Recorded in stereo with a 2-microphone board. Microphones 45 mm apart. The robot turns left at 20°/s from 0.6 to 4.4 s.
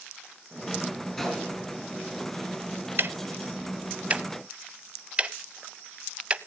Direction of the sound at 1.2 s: 5° left (ahead or behind).